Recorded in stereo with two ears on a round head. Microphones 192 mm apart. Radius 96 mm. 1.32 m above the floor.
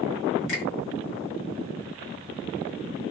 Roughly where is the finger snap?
Left.